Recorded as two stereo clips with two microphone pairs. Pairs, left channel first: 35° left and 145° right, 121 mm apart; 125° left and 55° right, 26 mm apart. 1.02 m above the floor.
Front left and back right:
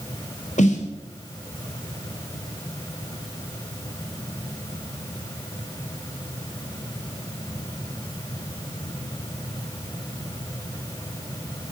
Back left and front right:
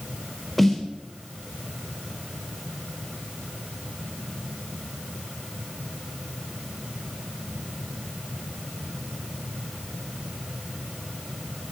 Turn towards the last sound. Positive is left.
turn(degrees=40)